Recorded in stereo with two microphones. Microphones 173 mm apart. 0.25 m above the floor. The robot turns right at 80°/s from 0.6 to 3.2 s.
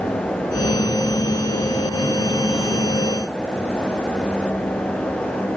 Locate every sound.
Only background noise.